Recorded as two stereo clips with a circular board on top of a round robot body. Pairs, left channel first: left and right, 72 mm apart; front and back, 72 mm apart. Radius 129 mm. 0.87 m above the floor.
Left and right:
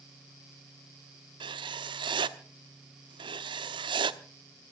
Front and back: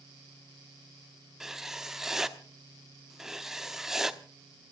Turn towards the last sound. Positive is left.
turn(degrees=-95)